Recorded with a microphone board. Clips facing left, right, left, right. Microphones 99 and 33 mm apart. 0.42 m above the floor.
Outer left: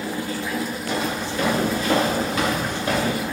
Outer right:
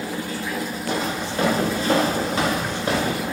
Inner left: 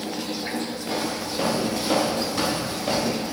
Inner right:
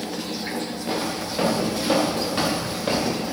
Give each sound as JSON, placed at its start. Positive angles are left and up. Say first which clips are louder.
{"t": 0.9, "sound": "footsteps", "louder": "outer right 1 dB, inner right 1 dB", "side_deg": -40, "distance_m": 6.0}